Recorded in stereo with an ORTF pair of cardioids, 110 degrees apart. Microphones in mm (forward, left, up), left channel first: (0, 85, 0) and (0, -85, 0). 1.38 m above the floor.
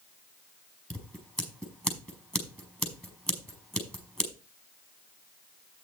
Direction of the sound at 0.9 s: Straight ahead.